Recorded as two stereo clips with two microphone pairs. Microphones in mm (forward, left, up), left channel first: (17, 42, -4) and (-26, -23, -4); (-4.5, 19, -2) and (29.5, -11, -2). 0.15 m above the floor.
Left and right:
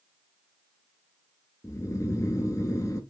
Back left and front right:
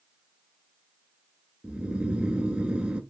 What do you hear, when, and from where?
1.6 s snoring: 20° left, 0.5 m